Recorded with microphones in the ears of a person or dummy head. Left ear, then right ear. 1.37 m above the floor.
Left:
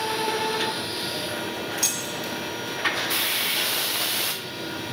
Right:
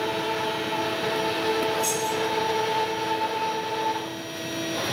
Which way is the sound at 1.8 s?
45° left (ahead or behind).